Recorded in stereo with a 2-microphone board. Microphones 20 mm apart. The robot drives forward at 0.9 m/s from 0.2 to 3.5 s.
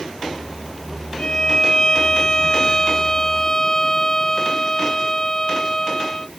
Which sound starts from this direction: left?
A violin, at 1.2 s.